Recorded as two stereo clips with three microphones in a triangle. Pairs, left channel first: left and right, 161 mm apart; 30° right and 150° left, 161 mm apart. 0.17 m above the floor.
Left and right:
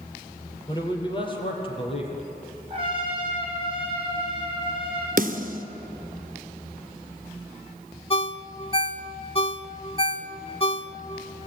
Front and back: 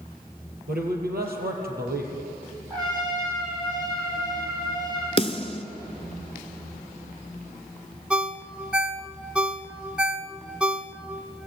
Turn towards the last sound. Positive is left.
turn(degrees=70)